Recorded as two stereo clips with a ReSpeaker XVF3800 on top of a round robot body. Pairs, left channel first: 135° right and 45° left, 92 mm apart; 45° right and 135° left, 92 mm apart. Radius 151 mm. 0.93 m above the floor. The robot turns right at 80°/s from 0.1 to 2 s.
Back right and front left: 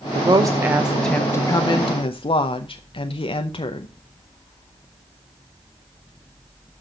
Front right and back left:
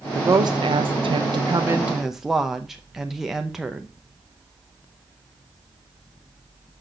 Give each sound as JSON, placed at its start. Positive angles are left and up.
{"t": 0.1, "sound": "a woman speaking", "azimuth_deg": 70, "distance_m": 0.9}